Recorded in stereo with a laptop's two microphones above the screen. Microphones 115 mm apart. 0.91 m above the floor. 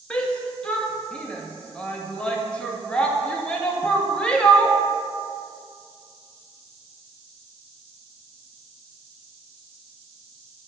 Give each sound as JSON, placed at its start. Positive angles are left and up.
{"t": 0.1, "sound": "a shout", "side_deg": 10, "distance_m": 0.7}